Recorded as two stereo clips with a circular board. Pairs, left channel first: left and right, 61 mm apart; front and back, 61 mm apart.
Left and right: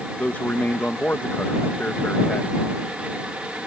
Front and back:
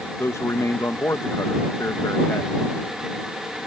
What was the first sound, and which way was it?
A man speaking, 30° left.